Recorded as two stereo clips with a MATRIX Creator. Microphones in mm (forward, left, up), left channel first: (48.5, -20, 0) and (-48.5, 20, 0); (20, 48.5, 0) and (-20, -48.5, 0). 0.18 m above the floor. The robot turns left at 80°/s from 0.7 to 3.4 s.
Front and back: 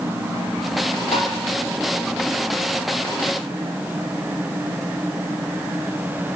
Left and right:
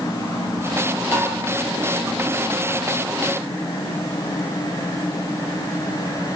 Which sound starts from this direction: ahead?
Tapping, at 1.1 s.